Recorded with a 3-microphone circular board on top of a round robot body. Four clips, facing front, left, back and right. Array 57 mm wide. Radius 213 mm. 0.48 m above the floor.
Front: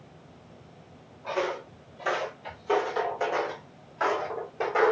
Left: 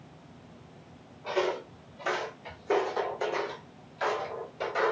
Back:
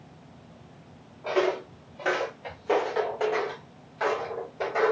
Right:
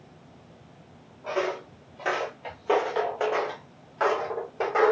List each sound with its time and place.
1.2 s footsteps: 160° right, 1.0 m; by 4.9 s 70° right, 1.8 m